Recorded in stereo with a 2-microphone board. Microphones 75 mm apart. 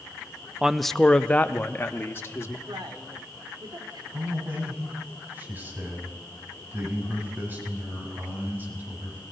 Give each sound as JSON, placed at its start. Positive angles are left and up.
{"t": 0.6, "sound": "a man speaking", "side_deg": -10, "distance_m": 0.6}
{"t": 2.7, "sound": "a man speaking", "side_deg": -75, "distance_m": 3.0}
{"t": 4.1, "sound": "a man speaking", "side_deg": -25, "distance_m": 5.5}